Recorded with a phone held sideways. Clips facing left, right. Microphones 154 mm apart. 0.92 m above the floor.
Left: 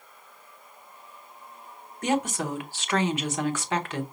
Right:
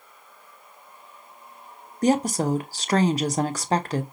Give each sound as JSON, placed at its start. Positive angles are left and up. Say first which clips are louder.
{"t": 2.0, "sound": "a woman speaking", "louder": "right 5 dB", "side_deg": -35, "distance_m": 0.6}